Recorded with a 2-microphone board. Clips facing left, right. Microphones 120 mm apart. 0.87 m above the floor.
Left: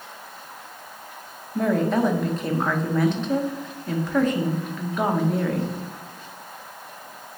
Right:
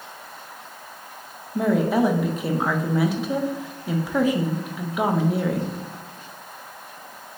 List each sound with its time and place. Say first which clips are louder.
1.6 s a woman speaking: right 1 dB; 10° right (ahead or behind), 0.5 m